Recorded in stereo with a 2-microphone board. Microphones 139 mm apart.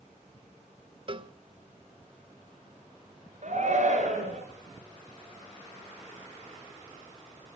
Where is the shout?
65° right (ahead or behind), 6 m.